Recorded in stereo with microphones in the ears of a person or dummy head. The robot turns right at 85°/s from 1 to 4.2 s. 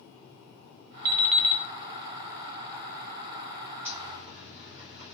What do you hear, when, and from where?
1.1 s an alarm clock: 15° right, 0.5 m; by 1.6 s 30° left, 0.5 m
3.9 s a zipper: 10° right (ahead or behind), 0.9 m; by 5.1 s 35° right (ahead or behind), 0.9 m